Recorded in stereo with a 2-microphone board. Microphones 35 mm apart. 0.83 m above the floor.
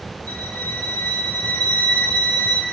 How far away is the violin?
About 2.5 m.